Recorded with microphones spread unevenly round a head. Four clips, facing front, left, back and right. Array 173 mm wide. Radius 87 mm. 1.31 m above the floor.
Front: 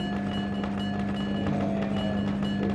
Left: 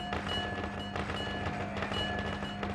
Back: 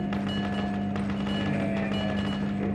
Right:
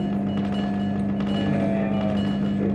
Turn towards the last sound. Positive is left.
turn(degrees=-80)